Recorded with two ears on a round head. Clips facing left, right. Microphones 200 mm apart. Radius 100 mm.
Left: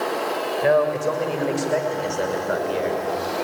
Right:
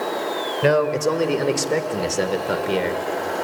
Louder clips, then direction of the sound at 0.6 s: Right 1 dB; 55° right (ahead or behind).